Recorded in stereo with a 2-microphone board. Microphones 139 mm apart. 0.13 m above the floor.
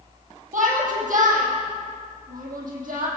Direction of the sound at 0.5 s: 65° right (ahead or behind).